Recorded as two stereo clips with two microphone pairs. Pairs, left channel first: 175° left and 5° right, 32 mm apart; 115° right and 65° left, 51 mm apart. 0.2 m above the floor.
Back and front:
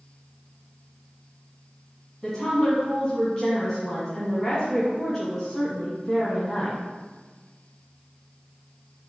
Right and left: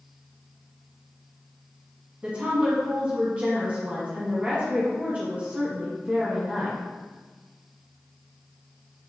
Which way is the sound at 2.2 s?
105° left.